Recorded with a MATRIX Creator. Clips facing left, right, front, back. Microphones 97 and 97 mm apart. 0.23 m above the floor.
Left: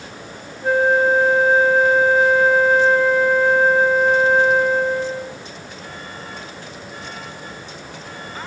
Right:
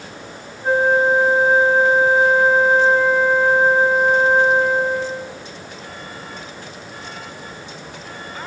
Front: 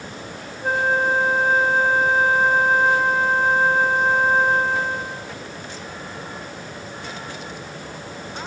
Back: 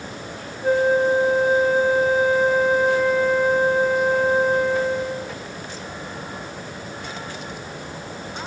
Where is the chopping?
No chopping in this recording.